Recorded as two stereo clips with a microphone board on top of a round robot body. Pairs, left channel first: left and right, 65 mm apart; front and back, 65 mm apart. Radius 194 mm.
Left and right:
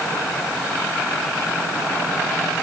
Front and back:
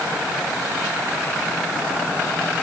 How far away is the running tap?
No running tap in this recording.